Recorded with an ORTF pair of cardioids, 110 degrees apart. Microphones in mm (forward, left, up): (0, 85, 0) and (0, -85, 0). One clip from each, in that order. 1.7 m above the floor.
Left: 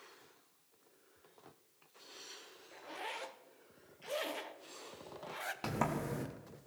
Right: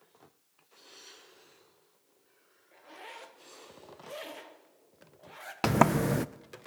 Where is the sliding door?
60° right, 0.6 m.